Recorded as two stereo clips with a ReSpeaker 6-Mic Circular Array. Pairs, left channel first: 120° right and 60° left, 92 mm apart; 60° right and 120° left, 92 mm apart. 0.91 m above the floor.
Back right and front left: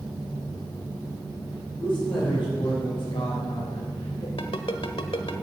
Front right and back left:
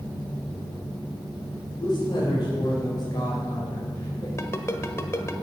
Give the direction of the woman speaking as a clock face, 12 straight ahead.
3 o'clock.